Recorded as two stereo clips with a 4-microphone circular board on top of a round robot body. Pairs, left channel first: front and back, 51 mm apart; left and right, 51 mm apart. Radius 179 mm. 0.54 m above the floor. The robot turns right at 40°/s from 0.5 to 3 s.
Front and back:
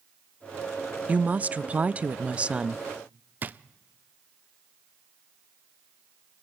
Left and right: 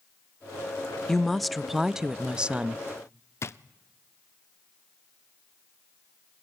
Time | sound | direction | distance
1.1 | a woman speaking | 165° left | 0.8 m
3.4 | a drawer | 125° left | 0.5 m